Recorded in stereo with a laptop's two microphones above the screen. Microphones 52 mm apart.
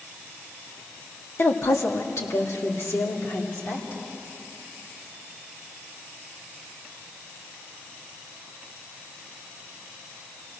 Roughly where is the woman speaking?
Left.